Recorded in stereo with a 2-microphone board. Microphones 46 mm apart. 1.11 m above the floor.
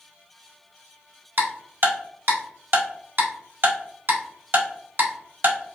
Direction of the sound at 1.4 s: 65° right (ahead or behind).